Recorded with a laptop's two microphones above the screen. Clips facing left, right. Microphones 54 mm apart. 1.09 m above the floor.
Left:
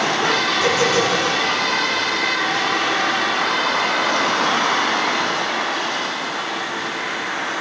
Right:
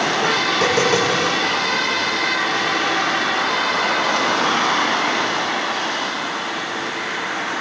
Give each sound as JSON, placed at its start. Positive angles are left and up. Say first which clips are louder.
{"t": 0.5, "sound": "tapping", "louder": "even", "side_deg": -65, "distance_m": 7.0}